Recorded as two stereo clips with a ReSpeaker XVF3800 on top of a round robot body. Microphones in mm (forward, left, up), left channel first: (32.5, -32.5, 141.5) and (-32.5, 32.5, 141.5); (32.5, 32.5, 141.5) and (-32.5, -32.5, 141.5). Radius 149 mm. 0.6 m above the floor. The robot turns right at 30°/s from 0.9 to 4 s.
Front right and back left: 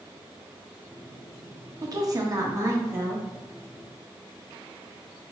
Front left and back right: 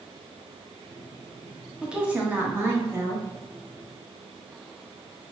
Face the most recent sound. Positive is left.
turn(degrees=-145)